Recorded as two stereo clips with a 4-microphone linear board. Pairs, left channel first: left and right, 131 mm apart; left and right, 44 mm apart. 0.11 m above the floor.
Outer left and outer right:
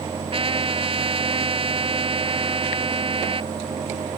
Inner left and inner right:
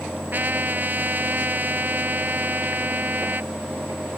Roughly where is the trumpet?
Right.